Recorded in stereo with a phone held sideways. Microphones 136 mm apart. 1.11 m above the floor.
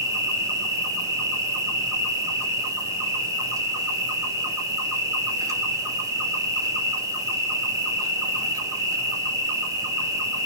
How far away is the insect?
About 1.2 m.